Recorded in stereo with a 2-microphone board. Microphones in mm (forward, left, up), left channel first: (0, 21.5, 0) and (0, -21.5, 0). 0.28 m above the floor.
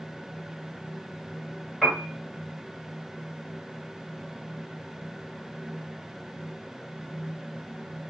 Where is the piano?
5° right (ahead or behind), 1.5 m.